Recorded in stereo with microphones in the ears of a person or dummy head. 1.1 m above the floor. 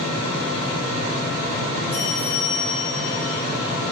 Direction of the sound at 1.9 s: 10° left (ahead or behind).